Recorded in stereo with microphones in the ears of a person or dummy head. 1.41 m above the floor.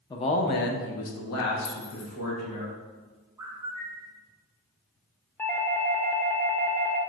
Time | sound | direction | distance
0.1 | a man speaking | 20° left (ahead or behind) | 0.6 m
1.6 | keys jangling | 65° left (ahead or behind) | 0.9 m
3.4 | a bird | 15° right (ahead or behind) | 0.7 m
5.4 | a doorbell | 10° left (ahead or behind) | 0.6 m